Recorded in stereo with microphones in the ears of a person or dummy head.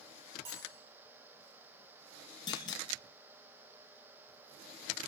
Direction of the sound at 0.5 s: 30° right (ahead or behind).